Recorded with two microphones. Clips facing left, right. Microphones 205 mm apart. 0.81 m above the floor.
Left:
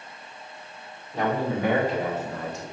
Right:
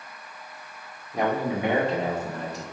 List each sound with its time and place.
1.1 s a man speaking: 15° right (ahead or behind), 1.7 m; by 2.6 s 40° right (ahead or behind), 1.2 m